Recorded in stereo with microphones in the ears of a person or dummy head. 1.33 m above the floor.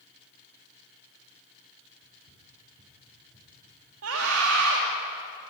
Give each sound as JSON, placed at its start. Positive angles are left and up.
{"t": 2.0, "sound": "running footsteps", "side_deg": -50, "distance_m": 6.5}
{"t": 4.0, "sound": "a scream", "side_deg": -85, "distance_m": 2.5}